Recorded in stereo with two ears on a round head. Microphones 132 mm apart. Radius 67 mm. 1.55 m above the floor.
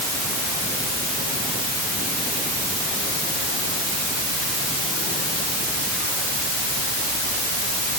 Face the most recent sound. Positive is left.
No sound to turn to.